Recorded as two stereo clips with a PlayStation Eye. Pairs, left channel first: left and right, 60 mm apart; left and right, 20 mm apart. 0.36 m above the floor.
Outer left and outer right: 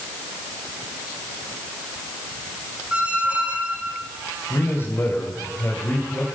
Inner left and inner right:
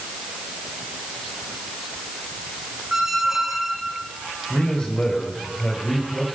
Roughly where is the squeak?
Centre.